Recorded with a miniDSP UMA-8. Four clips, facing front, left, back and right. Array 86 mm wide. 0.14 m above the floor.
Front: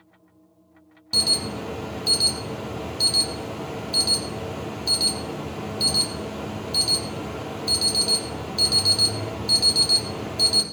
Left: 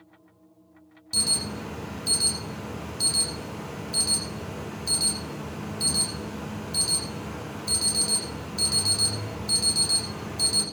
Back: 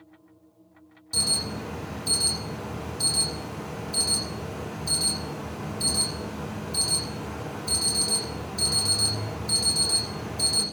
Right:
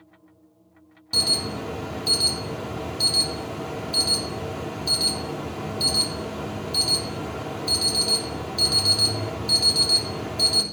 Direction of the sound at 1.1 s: 25° right.